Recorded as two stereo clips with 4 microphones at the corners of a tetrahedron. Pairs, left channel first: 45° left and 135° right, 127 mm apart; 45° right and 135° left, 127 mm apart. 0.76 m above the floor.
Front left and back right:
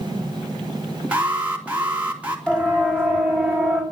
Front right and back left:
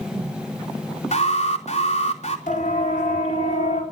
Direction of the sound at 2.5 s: 35° right.